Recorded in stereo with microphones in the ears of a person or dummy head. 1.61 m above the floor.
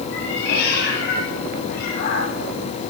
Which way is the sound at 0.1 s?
70° left (ahead or behind).